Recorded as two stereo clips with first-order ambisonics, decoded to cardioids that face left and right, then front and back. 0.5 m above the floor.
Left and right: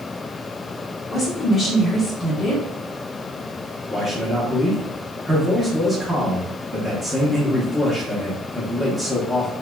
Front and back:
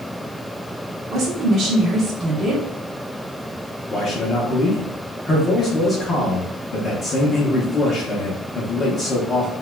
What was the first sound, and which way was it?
A woman speaking, 150° left.